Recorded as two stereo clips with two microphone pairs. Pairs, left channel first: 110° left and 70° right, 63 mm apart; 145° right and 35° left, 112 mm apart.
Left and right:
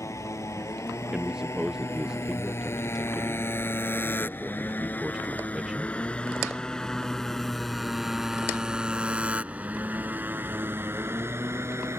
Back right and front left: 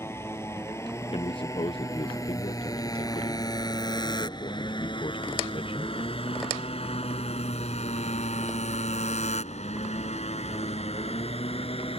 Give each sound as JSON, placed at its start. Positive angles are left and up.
{"t": 0.0, "sound": "a motorcycle", "azimuth_deg": 150}
{"t": 1.1, "sound": "a man speaking", "azimuth_deg": -145}